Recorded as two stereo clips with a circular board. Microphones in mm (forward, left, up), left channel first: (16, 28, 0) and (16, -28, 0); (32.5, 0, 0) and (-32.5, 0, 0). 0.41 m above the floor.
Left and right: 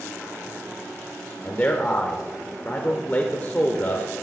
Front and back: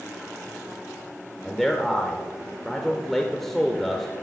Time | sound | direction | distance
1.4 | a man speaking | 80° left | 1.0 m